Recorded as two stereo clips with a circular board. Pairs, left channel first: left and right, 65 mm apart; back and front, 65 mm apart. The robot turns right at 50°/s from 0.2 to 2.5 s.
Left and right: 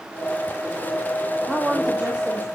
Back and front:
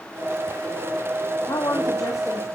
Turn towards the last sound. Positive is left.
turn(degrees=-130)